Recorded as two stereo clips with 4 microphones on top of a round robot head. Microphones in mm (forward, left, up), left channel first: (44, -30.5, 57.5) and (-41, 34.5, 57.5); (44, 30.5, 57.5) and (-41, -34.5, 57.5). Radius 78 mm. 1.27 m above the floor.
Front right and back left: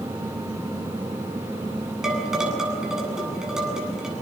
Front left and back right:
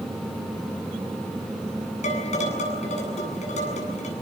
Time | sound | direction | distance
2.0 | dishes clattering | 60° left | 8.5 m